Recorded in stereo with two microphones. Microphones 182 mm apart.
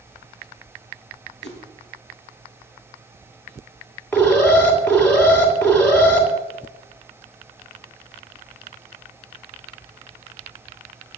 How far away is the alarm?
About 2.5 m.